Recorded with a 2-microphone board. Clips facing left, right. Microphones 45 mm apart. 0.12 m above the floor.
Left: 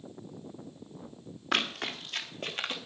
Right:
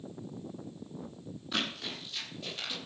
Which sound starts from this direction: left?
Running footsteps, at 1.5 s.